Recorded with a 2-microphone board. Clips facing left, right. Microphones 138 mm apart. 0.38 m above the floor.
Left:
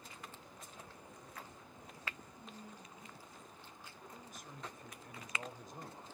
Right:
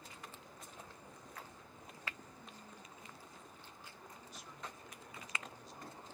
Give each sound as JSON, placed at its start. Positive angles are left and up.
{"t": 2.4, "sound": "a woman speaking", "side_deg": 20, "distance_m": 5.5}
{"t": 4.1, "sound": "a man speaking", "side_deg": 50, "distance_m": 1.2}